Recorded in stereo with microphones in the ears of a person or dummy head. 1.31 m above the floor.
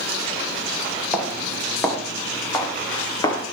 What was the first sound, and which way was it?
Footsteps, 5° left (ahead or behind).